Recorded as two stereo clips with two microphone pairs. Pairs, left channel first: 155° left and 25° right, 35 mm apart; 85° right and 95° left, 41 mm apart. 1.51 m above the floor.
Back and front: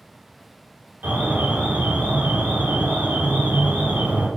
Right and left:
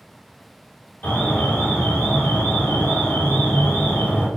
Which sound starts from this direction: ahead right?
An alarm, at 1.0 s.